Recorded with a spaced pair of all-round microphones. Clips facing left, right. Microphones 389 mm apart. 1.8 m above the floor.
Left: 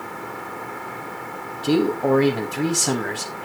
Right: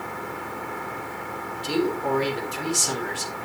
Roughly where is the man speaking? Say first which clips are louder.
Left 6 dB; left.